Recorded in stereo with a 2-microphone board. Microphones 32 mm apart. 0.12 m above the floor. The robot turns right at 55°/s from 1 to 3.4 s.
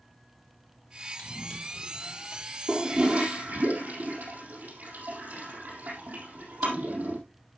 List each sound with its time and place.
1.2 s running footsteps: 35° left (ahead or behind), 6 m; by 2.4 s 45° right (ahead or behind), 6 m
2.7 s a toilet flushing: 25° right (ahead or behind), 4 m; by 7.2 s 60° right (ahead or behind), 4 m